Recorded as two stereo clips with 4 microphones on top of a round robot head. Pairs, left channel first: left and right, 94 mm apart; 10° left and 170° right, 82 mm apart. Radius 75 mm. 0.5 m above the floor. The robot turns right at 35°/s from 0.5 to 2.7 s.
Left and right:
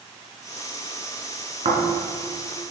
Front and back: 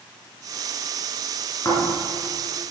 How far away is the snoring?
About 4 m.